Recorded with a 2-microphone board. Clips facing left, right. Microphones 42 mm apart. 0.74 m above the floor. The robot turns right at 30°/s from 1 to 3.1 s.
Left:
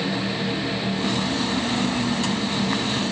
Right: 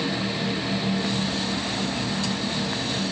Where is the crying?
No crying in this recording.